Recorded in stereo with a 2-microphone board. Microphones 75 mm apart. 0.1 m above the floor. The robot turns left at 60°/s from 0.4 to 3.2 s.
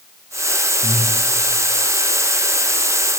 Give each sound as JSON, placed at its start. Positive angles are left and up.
{"t": 0.8, "sound": "breathing", "side_deg": 45, "distance_m": 6.0}